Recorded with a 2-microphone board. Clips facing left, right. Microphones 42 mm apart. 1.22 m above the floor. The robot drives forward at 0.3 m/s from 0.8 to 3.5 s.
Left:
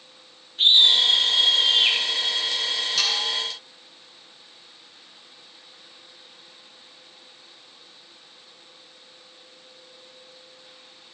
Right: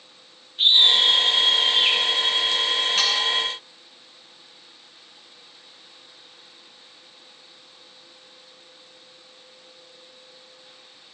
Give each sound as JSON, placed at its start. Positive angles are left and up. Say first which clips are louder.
{"t": 0.6, "sound": "a scream", "louder": "even", "side_deg": -10, "distance_m": 4.0}
{"t": 3.0, "sound": "sawing", "louder": "even", "side_deg": -40, "distance_m": 4.0}